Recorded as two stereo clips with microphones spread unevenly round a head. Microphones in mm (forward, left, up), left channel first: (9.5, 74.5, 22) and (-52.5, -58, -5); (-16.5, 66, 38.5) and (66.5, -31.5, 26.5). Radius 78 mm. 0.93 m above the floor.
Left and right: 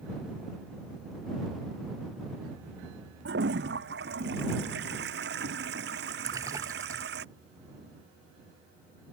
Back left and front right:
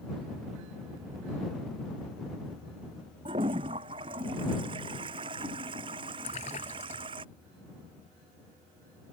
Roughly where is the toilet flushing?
Right.